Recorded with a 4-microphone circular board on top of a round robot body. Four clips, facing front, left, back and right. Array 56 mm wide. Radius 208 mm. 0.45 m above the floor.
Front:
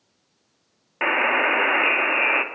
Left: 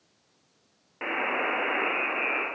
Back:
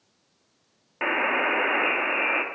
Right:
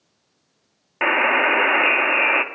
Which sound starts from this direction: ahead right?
A buzzer, at 1.0 s.